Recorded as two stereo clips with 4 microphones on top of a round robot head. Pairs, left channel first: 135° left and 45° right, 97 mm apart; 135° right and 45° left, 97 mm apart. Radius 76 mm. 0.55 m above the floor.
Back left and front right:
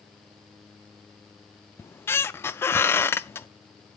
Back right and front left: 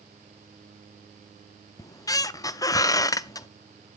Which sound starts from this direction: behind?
A squeak, at 1.8 s.